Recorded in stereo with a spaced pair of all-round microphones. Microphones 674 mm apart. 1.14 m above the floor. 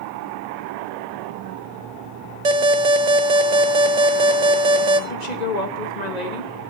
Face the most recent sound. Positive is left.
turn(degrees=80)